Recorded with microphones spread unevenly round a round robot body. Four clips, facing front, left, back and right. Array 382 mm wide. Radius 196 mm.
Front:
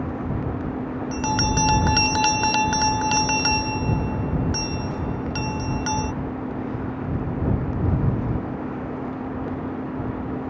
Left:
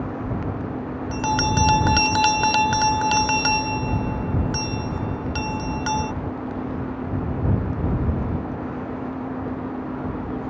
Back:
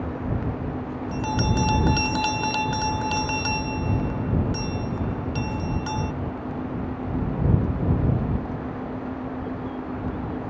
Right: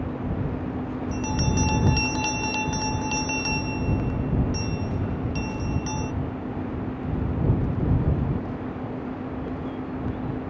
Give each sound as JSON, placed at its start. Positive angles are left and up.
{"t": 1.1, "sound": "a bell", "azimuth_deg": 65}